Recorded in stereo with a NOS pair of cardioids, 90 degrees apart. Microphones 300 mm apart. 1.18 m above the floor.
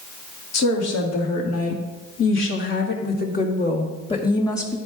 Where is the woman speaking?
65° left, 2.5 m; by 4.8 s 10° left, 2 m.